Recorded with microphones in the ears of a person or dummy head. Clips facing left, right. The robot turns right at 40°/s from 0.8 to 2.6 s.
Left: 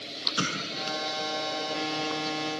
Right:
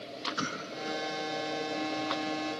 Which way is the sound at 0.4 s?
45° left (ahead or behind).